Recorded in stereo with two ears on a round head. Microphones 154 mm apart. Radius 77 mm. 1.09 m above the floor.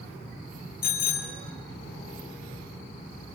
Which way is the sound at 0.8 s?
50° left (ahead or behind).